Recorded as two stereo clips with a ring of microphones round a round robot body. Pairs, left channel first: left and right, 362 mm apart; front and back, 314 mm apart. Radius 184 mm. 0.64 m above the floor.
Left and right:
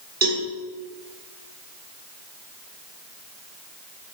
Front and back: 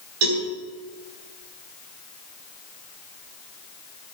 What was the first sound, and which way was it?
A cowbell, 155° right.